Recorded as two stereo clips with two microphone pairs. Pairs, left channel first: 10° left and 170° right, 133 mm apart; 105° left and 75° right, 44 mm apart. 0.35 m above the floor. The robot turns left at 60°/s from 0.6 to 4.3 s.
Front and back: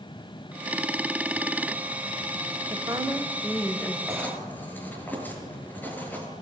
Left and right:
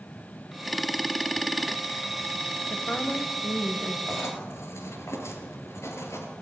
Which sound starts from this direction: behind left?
A woman speaking, at 2.7 s.